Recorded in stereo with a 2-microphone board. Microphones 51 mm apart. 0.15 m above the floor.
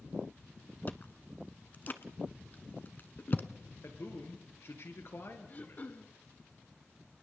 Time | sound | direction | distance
0.9 | chewing | 40° left (ahead or behind) | 1.0 m
3.8 | a man speaking | 55° left (ahead or behind) | 3 m
5.5 | throat clearing | 35° left (ahead or behind) | 1.3 m